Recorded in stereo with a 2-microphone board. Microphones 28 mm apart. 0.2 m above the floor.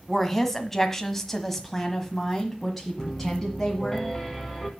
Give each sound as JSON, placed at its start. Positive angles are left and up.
{"t": 0.1, "sound": "a woman speaking", "side_deg": 10, "distance_m": 1.5}
{"t": 3.0, "sound": "a piano", "side_deg": 5, "distance_m": 2.0}